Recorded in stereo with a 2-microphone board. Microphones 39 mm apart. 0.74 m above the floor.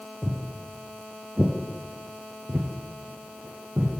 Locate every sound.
0.2 s footsteps: 10° left (ahead or behind), 1.0 m; by 3.9 s 40° right (ahead or behind), 1.4 m